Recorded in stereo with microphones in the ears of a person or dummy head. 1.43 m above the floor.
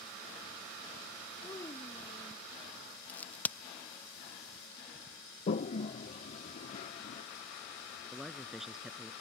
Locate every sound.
1.4 s a child speaking: 20° left (ahead or behind)
3.1 s a crack: 20° left (ahead or behind)
5.5 s a toilet flushing: 45° left (ahead or behind)
8.1 s a man speaking: 10° right (ahead or behind)